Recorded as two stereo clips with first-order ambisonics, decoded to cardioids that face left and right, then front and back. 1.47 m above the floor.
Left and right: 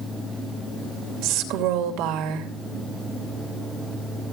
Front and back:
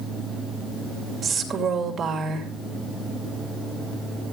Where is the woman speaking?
110° right, 2.5 m.